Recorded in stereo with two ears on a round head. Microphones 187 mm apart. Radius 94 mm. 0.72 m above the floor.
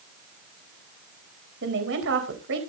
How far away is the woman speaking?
About 4 m.